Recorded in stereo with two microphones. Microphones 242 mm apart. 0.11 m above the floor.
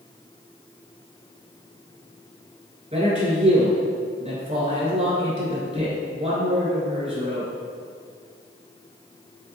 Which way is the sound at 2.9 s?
30° right (ahead or behind).